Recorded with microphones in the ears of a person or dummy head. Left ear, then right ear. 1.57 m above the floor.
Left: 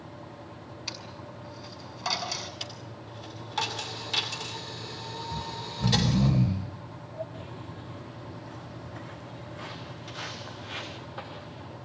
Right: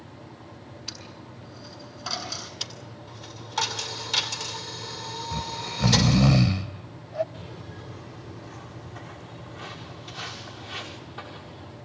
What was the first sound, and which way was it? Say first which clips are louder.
A dropped coin: left 1 dB; 70° left (ahead or behind).